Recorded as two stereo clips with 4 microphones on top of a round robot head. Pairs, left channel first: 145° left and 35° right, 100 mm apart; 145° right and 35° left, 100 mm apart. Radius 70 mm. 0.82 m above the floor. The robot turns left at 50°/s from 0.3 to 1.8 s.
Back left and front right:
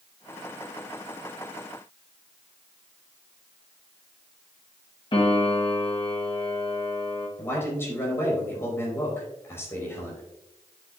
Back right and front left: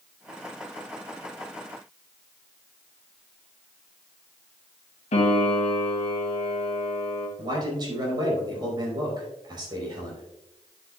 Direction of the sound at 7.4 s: 80° left.